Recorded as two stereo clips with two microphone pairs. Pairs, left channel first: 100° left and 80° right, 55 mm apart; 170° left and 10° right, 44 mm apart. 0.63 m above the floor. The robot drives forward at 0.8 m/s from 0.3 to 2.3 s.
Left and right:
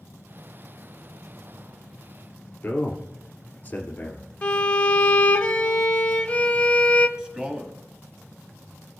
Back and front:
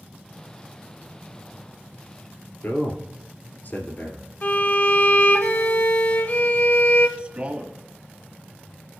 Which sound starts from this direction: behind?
A violin, at 4.4 s.